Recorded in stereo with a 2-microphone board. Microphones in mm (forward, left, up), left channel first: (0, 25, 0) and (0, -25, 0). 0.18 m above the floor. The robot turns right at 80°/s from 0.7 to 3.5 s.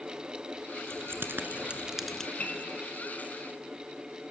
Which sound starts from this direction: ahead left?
A piano, at 2.4 s.